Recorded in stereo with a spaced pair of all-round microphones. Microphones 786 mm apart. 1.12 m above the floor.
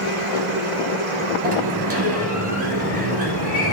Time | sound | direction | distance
0.0 | a machine running | 60° left (ahead or behind) | 2 m
1.4 | a sliding door | 15° left (ahead or behind) | 3 m